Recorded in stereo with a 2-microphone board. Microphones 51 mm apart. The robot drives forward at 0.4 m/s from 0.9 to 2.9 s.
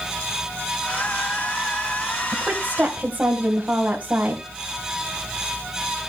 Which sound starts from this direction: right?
A woman speaking, at 2.3 s.